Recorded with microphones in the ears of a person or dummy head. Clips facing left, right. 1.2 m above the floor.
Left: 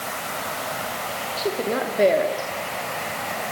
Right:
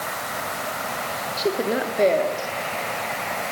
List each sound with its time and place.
1.4 s a woman speaking: 20° right (ahead or behind), 3 m; by 2.5 s 15° left (ahead or behind), 3 m